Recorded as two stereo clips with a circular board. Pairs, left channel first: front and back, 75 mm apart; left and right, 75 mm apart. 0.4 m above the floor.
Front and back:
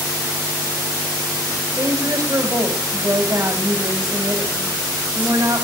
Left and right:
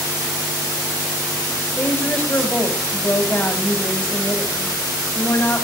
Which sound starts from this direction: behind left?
A woman speaking, at 1.8 s.